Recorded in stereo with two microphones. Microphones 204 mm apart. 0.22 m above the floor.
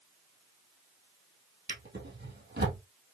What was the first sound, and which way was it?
A drawer, 55° right (ahead or behind).